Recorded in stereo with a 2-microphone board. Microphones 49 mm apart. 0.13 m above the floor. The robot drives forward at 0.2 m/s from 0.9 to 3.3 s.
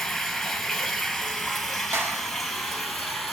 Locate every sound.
0.0 s running water: 5° left (ahead or behind), 0.8 m; by 3.3 s centre (ahead or behind), 1.3 m
1.9 s a clap: 55° right (ahead or behind), 1.6 m